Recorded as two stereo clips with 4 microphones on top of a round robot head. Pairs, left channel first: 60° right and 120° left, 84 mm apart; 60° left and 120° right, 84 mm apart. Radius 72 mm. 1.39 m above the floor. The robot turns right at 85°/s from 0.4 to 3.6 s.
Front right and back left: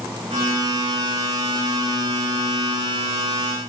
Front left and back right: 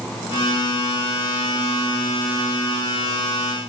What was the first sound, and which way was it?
Only background noise.